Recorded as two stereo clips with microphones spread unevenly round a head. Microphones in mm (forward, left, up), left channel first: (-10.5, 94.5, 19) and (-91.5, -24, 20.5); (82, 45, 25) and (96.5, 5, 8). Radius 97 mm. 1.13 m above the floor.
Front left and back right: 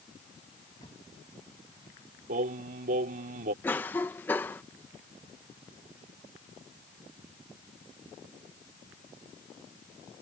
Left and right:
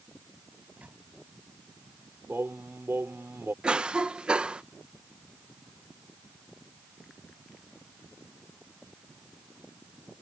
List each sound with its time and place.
0.8 s a microwave: 15° right
2.3 s singing: 145° right
3.6 s a cough: 20° right